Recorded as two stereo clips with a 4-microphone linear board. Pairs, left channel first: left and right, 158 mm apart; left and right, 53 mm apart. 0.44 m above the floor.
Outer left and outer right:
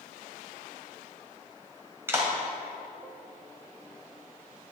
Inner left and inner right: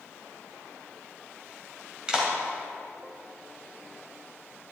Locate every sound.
2.1 s a clap: 15° right (ahead or behind), 2.5 m